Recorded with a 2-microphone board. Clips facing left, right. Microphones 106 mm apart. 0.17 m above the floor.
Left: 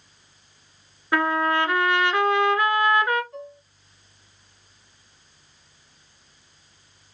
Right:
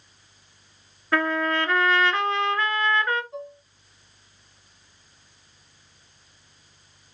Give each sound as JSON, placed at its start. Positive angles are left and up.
{"t": 1.1, "sound": "a trumpet", "side_deg": 15, "distance_m": 1.1}
{"t": 3.3, "sound": "dishes clattering", "side_deg": -20, "distance_m": 0.7}